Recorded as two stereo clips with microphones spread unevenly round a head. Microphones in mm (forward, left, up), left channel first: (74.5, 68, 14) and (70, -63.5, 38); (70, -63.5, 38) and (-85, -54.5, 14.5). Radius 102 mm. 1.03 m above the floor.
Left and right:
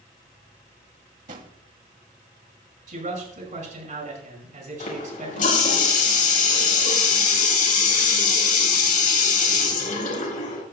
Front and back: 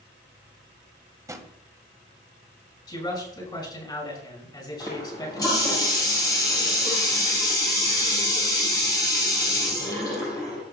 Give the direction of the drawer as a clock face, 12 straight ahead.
4 o'clock.